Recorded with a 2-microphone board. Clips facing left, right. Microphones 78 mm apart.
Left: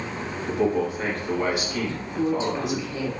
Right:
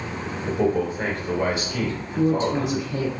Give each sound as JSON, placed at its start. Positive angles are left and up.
{"t": 0.5, "sound": "a man speaking", "side_deg": -25, "distance_m": 1.8}
{"t": 1.8, "sound": "a woman speaking", "side_deg": -45, "distance_m": 2.0}